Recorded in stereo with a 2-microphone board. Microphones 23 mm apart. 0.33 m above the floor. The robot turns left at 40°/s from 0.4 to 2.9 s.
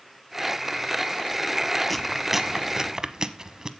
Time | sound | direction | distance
1.9 | chewing | 5° left (ahead or behind) | 0.8 m